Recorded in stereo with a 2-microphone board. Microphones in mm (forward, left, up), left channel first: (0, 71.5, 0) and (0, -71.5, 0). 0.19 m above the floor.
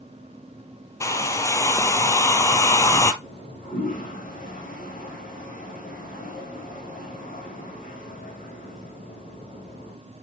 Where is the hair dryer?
20° left (ahead or behind), 0.8 m.